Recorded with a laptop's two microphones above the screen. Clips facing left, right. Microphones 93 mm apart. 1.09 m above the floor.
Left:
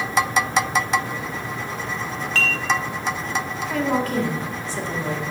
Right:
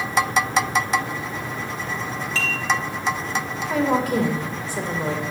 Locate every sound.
2.4 s dishes clattering: 50° left (ahead or behind), 1.0 m
3.7 s a woman speaking: 15° right (ahead or behind), 2 m